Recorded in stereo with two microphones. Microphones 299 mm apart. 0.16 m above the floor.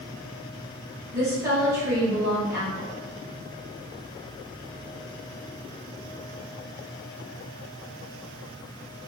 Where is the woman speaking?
10° right (ahead or behind), 1.9 m.